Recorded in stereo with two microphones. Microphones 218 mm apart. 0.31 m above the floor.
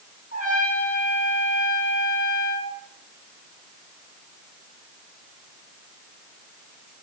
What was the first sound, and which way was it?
A trumpet, 40° right (ahead or behind).